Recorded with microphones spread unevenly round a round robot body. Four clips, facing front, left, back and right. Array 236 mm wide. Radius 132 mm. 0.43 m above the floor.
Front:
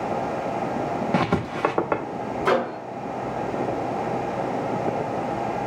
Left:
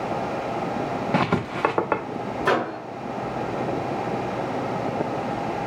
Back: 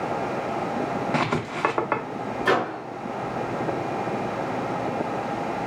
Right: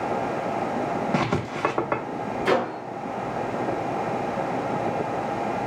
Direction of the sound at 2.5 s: 25° left.